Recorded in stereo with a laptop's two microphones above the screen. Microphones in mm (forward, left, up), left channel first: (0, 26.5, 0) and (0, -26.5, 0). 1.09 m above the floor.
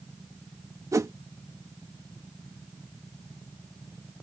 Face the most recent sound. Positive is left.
turn(degrees=-85)